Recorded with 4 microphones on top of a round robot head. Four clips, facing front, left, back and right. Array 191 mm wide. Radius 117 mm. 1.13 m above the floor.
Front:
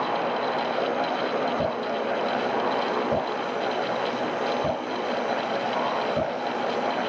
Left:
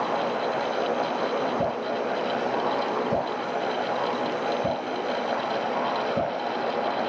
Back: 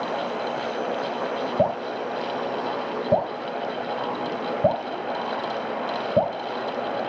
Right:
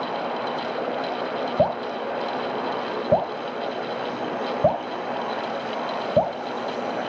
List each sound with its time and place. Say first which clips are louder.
1.6 s dripping: right 3 dB, back 2 dB; 130° right, 6 m